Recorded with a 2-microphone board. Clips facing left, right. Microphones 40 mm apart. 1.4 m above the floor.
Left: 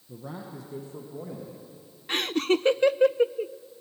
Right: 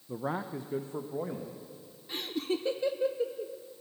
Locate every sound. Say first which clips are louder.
0.1 s a man speaking: right 6 dB; 50° right (ahead or behind), 0.8 m; by 1.6 s 30° right (ahead or behind), 1.8 m
2.1 s laughter: left 8 dB; 75° left (ahead or behind), 0.5 m